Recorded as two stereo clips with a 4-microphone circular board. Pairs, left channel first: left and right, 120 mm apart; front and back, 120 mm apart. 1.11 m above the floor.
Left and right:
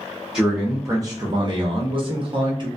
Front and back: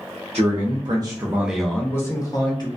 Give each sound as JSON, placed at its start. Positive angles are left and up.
{"t": 0.3, "sound": "a man speaking", "azimuth_deg": -170, "distance_m": 0.7}